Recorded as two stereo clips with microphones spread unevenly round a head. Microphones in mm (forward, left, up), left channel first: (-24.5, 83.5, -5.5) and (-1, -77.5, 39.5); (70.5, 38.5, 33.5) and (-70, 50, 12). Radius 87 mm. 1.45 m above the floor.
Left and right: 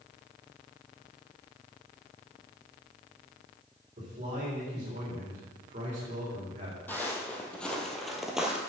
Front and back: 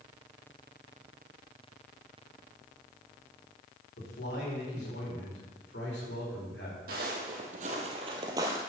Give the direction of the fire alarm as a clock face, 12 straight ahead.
I don't hear a fire alarm.